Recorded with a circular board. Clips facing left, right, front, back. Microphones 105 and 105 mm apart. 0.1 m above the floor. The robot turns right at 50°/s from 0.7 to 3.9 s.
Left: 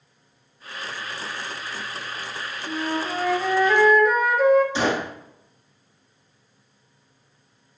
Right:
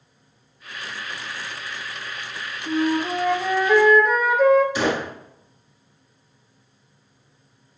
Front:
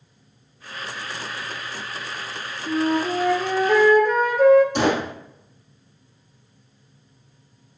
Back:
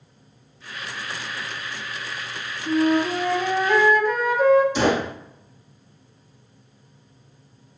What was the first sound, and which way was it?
A flute, 60° right.